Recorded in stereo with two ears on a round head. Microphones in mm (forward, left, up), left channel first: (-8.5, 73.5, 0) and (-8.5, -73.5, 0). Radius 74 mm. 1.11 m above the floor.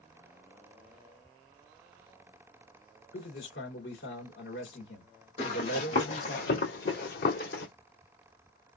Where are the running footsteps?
35° left (ahead or behind), 2.5 m; by 7.7 s 60° left (ahead or behind), 2.5 m.